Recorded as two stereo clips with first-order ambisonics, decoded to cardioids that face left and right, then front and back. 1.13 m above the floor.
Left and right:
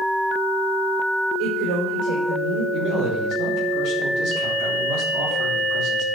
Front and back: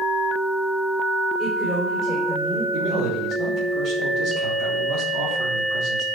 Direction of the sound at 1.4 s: 105° right.